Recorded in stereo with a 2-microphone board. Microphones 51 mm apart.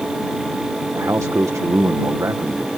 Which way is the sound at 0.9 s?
80° right.